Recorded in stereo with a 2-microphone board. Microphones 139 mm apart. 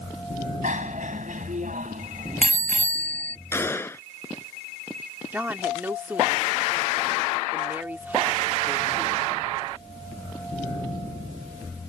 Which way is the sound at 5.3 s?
15° right (ahead or behind).